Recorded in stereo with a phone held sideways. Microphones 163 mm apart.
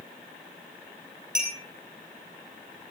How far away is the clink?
About 8.5 m.